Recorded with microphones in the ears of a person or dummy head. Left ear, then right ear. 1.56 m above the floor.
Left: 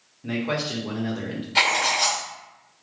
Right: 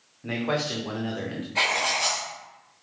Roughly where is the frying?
No frying in this recording.